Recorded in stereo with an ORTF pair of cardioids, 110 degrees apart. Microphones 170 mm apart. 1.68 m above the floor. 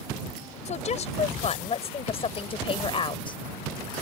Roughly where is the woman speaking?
Ahead left.